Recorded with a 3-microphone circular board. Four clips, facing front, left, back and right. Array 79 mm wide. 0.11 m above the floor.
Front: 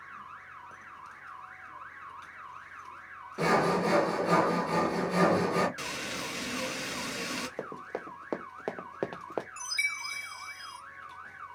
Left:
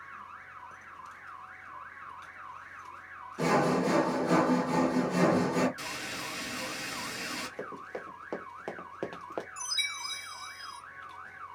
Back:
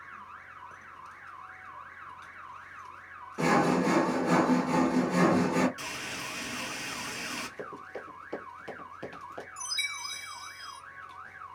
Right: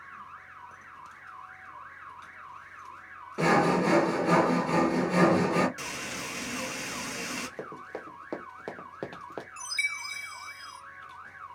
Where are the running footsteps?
5° right, 1.5 m; by 9.5 s 10° left, 0.6 m.